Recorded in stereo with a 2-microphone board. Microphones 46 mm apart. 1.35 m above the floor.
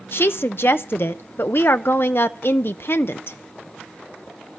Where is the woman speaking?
55° left (ahead or behind), 0.8 m.